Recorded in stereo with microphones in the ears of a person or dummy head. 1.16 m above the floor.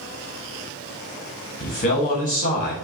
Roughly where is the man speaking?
Left.